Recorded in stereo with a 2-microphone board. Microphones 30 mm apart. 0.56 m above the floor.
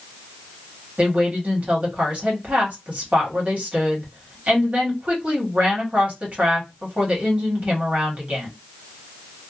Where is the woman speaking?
45° right (ahead or behind), 1.3 m.